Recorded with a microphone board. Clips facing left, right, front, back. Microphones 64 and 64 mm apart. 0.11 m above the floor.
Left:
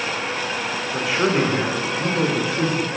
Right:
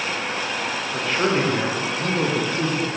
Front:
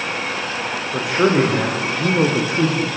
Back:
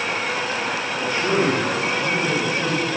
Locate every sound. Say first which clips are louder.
0.9 s a man speaking: left 2 dB, front 6 dB; 10° left, 8 m; by 2.9 s 5° left, 7 m